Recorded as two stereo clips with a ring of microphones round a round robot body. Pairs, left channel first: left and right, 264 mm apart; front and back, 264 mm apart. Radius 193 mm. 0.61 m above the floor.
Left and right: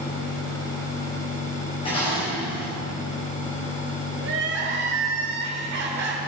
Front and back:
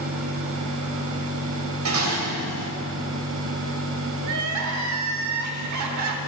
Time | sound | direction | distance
1.9 | dishes clattering | 165° left | 2.5 m
4.2 | crying | 150° right | 1.0 m